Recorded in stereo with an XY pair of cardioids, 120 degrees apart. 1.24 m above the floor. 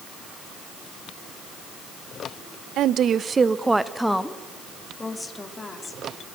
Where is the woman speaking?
65° right, 0.7 m; by 6.1 s 20° left, 3 m.